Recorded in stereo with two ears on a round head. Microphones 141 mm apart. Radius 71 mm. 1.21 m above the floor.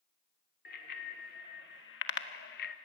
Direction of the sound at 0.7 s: 60° left (ahead or behind).